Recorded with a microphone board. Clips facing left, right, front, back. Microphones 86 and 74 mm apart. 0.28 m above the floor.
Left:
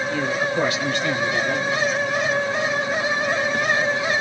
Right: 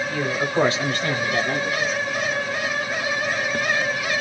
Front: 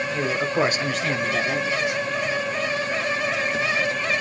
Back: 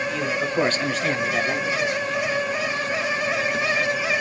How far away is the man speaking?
About 1.1 m.